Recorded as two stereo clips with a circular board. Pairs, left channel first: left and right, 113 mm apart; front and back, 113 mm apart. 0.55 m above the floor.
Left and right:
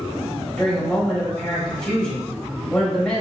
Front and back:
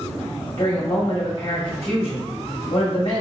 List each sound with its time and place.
0.6 s a woman speaking: 10° left, 0.9 m